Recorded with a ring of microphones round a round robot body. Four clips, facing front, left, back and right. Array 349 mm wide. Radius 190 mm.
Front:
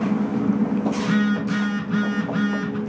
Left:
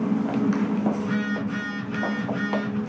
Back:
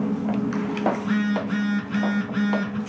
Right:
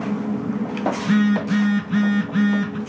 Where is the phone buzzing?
65° right, 3.5 m.